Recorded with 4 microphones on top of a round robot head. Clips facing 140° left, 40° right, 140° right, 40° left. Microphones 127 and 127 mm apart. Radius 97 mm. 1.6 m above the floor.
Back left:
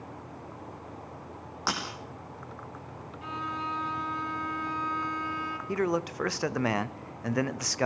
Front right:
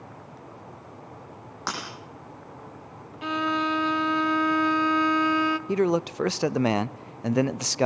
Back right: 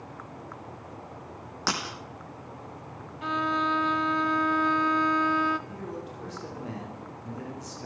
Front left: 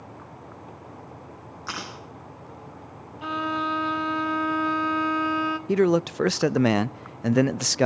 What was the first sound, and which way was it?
Breaking glass, 135° right.